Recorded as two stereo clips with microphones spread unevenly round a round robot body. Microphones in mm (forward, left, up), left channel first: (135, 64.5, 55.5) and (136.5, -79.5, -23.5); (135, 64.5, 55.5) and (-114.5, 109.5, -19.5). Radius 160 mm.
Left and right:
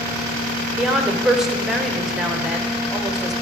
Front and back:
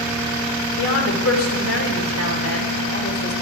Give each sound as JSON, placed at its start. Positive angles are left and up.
{"t": 0.8, "sound": "a woman speaking", "azimuth_deg": -45, "distance_m": 1.4}